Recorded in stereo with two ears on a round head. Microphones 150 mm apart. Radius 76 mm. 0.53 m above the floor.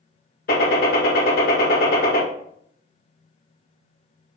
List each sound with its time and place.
0.5 s a gunshot: 65° left (ahead or behind), 1.7 m